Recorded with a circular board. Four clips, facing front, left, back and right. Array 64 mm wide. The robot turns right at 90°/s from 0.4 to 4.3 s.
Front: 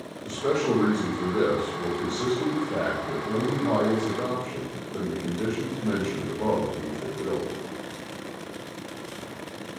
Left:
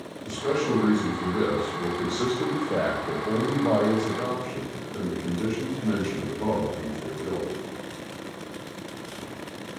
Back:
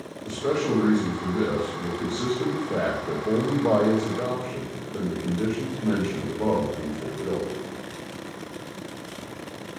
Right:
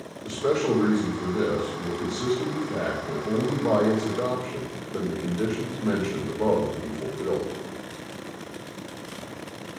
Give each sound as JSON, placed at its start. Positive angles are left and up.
{"t": 0.2, "sound": "a man speaking", "azimuth_deg": -75, "distance_m": 2.5}